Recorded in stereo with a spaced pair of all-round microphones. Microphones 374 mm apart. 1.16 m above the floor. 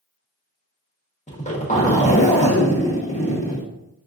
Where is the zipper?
20° left (ahead or behind), 1.0 m.